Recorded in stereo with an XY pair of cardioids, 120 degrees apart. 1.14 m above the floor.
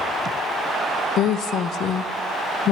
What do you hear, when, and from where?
1.2 s a woman speaking: 60° left, 0.5 m